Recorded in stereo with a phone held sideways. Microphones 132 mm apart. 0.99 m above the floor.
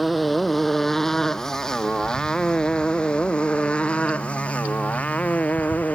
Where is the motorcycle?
Centre (ahead or behind); by 6.0 s 10° left (ahead or behind).